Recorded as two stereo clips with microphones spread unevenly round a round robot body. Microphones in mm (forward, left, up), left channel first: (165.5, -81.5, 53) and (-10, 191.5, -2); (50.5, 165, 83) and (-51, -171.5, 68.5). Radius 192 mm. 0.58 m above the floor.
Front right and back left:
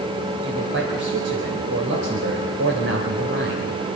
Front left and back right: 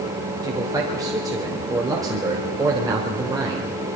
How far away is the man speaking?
About 3 m.